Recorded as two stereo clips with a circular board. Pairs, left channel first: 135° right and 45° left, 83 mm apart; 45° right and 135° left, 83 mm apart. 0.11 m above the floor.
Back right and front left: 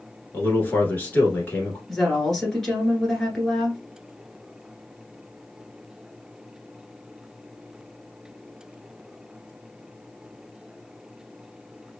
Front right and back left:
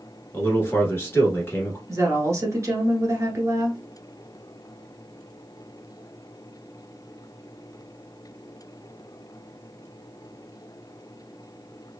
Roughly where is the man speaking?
Right.